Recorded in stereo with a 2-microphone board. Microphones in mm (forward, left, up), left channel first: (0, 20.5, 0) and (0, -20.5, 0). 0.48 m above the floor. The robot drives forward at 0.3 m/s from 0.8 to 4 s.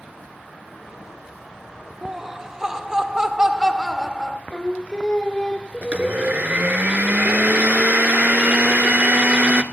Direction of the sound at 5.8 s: 40° right (ahead or behind).